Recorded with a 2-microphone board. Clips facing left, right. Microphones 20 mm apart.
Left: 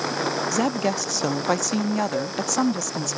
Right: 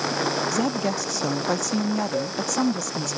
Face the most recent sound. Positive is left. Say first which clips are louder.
# even
turn(degrees=-5)  # may be behind; listen again after turning